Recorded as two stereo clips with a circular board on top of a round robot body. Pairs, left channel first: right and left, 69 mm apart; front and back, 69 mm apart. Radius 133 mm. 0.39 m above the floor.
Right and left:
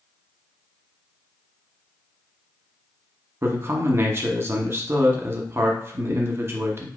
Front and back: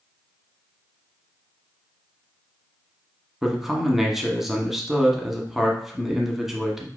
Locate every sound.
3.4 s a man speaking: 95° left, 1.2 m